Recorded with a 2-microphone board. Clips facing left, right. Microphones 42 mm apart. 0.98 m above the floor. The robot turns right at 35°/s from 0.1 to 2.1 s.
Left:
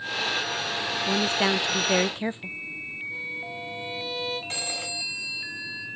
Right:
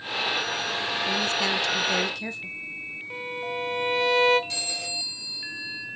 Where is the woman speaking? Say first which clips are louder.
Left 3 dB; 20° left (ahead or behind), 0.7 m; by 2.6 s 25° left (ahead or behind), 0.7 m.